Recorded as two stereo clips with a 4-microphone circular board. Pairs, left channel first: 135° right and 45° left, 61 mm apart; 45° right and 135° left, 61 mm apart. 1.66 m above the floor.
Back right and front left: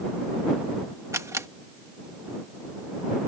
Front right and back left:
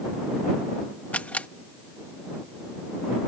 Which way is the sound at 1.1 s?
20° left.